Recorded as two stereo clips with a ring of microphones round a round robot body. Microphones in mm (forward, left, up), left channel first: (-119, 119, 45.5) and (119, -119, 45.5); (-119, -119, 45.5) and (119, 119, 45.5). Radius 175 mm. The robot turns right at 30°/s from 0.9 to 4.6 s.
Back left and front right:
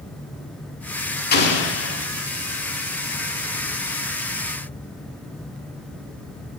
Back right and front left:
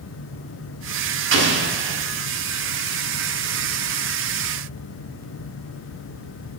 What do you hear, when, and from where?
1.3 s an explosion: 85° left, 1.3 m; by 2.0 s 105° left, 1.3 m